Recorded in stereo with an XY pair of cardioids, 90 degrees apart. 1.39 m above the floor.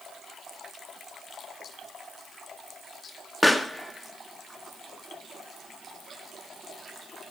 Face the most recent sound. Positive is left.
turn(degrees=10)